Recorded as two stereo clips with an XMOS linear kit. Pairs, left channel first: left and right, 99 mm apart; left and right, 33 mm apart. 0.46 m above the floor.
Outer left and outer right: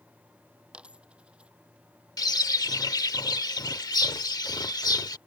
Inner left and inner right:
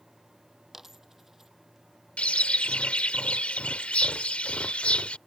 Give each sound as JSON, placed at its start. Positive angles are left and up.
{"t": 0.7, "sound": "a dropped coin", "side_deg": -10}
{"t": 2.2, "sound": "a bird", "side_deg": 40}